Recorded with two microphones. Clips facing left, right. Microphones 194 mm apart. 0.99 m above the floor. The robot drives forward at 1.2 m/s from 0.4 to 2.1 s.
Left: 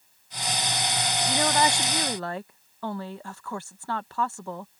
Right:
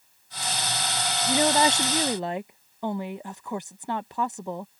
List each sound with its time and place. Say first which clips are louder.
1.3 s a woman speaking: right 3 dB; 20° right (ahead or behind)